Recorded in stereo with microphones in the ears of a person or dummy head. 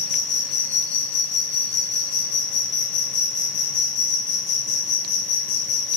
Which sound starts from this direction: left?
An insect, at 0.0 s.